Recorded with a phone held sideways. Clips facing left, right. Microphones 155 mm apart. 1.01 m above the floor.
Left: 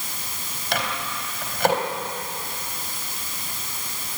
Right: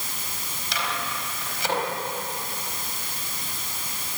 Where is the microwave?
60° left (ahead or behind), 4.5 m.